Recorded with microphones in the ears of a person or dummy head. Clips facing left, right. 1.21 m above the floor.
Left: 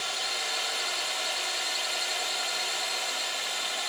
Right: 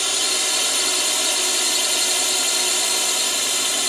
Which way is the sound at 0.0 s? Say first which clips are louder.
Right 8 dB; 60° right (ahead or behind).